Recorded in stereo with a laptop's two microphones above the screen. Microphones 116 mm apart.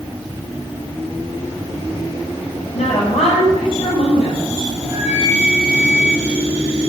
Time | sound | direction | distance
2.7 | a woman speaking | 75° left (ahead or behind) | 4.5 m
4.8 | a flute | 75° left (ahead or behind) | 5 m